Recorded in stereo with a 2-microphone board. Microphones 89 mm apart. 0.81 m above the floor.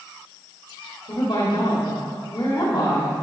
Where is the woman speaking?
60° left (ahead or behind), 1.6 m.